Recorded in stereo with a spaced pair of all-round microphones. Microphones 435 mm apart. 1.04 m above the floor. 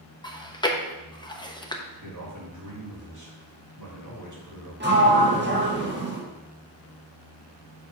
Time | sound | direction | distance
0.2 | chewing | 10° left (ahead or behind) | 0.7 m
2.0 | a man speaking | 40° right (ahead or behind) | 2.5 m
4.8 | a sliding door | 25° right (ahead or behind) | 1.5 m